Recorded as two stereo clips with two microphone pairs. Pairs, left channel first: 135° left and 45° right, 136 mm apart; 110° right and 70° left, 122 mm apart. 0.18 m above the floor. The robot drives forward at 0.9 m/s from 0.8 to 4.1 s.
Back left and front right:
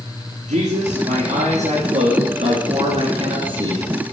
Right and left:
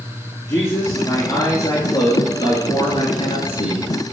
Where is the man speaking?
45° right, 4 m; by 4.1 s 100° right, 3 m.